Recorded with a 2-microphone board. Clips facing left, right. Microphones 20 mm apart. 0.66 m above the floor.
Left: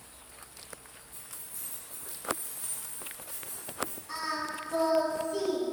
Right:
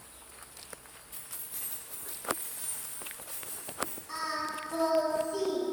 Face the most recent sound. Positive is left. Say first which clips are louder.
# even
turn(degrees=0)  # may be behind; listen again after turning